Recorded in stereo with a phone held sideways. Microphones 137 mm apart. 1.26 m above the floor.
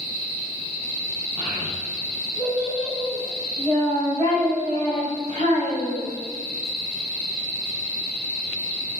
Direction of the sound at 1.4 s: 25° left (ahead or behind).